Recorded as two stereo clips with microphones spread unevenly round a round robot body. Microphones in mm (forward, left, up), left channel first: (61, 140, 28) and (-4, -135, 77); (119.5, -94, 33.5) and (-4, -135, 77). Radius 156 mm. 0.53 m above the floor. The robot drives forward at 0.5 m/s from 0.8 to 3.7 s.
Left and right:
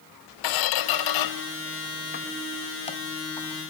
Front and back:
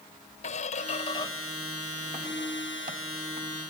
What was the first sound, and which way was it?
A squeak, 70° left.